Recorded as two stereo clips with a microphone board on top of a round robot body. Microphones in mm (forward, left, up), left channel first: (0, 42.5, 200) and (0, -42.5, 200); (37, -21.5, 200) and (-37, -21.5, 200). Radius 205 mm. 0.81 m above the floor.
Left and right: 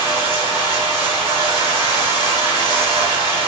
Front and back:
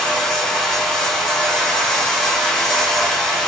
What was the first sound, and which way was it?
Running water, 85° right.